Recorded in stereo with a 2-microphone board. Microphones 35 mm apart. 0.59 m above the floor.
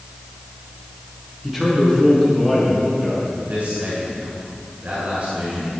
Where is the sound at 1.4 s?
5° right (ahead or behind), 7 m.